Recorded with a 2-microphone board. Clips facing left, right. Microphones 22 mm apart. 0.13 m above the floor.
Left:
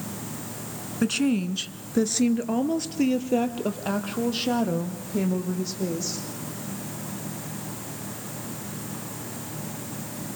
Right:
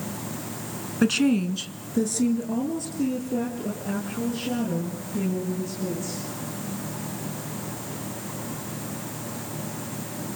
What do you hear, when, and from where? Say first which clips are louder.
1.0 s a woman speaking: right 2 dB; 20° right (ahead or behind), 1.1 m; by 6.2 s 65° left (ahead or behind), 6.5 m